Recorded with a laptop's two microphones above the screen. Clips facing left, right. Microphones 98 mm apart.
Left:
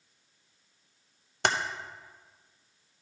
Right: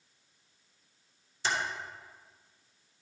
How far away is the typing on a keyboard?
About 0.6 m.